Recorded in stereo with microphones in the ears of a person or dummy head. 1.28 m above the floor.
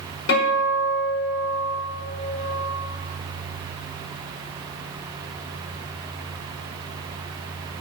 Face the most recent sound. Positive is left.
turn(degrees=70)  # may be behind; listen again after turning